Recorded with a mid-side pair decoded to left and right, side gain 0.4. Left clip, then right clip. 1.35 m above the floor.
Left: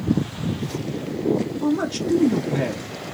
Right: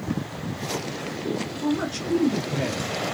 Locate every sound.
1.6 s a man speaking: 50° left, 0.9 m